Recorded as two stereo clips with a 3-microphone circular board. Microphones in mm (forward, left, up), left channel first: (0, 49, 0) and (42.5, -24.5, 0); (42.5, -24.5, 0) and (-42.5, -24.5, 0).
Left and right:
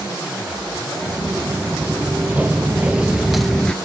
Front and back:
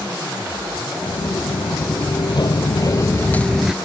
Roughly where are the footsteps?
Ahead.